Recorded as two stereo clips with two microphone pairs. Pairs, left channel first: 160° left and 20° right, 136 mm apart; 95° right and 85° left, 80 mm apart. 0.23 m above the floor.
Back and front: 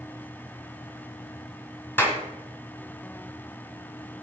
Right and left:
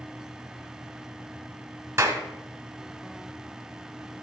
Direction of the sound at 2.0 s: 100° left.